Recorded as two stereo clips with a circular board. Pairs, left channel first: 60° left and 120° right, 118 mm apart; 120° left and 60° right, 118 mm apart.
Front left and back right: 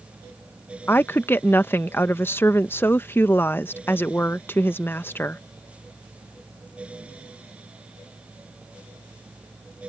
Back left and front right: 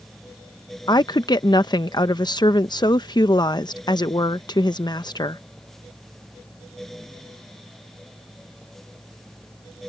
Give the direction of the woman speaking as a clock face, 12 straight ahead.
8 o'clock.